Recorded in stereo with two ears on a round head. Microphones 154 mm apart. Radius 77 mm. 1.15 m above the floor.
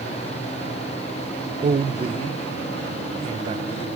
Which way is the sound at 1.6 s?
35° right (ahead or behind).